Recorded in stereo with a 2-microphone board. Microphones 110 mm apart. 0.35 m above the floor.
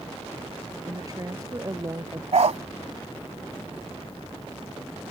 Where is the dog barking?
70° right (ahead or behind).